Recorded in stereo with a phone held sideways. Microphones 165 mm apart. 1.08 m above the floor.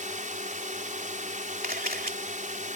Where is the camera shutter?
60° right (ahead or behind).